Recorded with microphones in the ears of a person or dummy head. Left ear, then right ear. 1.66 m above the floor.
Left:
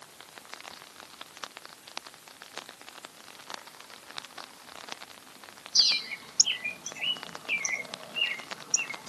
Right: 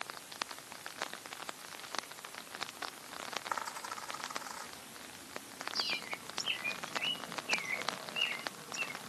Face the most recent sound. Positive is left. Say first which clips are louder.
# left 13 dB
turn(degrees=35)  # may be behind; listen again after turning